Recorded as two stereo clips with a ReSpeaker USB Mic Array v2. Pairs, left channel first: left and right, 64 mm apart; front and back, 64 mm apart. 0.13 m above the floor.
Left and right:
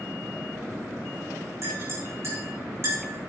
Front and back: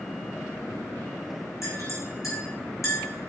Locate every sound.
1.6 s a clink: 40° right, 6.5 m